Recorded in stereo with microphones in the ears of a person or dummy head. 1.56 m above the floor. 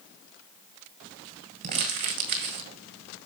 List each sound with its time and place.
1.6 s crumpling: 50° right (ahead or behind), 1.5 m